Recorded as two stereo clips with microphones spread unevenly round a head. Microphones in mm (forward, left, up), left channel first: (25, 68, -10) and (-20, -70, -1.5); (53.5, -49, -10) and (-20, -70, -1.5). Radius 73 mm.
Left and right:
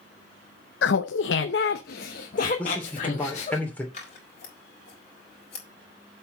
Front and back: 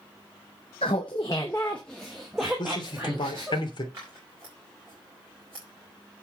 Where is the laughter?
60° left, 0.6 m; by 3.6 s 120° left, 1.6 m.